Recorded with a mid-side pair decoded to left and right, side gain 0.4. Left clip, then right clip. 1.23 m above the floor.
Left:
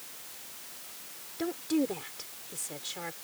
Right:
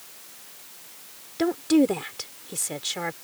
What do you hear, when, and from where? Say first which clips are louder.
1.4 s a woman speaking: right 10 dB; 65° right